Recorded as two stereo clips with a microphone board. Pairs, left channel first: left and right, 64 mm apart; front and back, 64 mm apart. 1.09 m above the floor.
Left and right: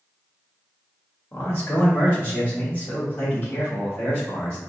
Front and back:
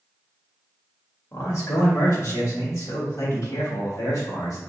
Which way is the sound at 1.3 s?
35° left.